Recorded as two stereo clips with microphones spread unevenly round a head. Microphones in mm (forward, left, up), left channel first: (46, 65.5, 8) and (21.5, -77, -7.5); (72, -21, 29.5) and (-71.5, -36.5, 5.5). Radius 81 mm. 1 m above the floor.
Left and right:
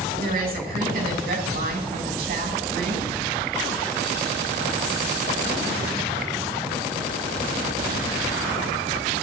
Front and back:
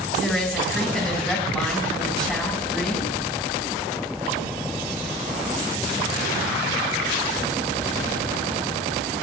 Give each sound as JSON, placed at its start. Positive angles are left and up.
{"t": 0.2, "sound": "a woman speaking", "azimuth_deg": -80, "distance_m": 6.5}